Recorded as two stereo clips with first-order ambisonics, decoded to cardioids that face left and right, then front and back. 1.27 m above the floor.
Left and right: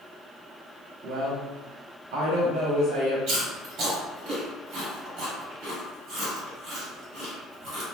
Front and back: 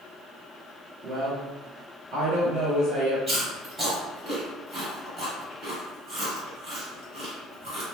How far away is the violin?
I don't hear a violin.